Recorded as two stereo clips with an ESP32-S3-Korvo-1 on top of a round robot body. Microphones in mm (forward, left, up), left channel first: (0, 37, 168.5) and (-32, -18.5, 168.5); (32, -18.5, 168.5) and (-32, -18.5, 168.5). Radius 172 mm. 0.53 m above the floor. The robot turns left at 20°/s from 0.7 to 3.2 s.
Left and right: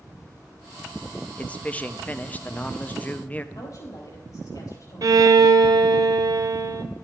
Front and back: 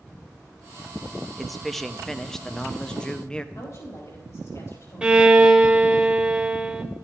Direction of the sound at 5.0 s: 105° right.